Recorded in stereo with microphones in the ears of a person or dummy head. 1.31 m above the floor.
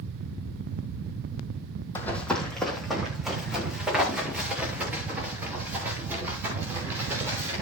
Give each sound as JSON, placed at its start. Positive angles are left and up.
{"t": 1.9, "sound": "running footsteps", "side_deg": 15, "distance_m": 3.0}